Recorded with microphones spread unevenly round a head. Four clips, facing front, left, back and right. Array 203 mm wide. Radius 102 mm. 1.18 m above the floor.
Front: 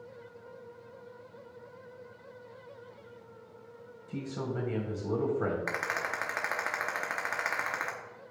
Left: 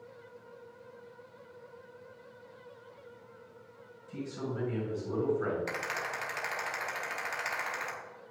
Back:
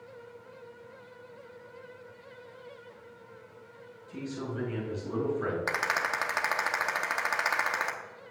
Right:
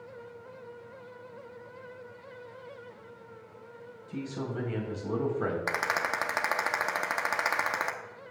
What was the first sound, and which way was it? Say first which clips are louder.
A man speaking: right 2 dB, front 1 dB; 40° right.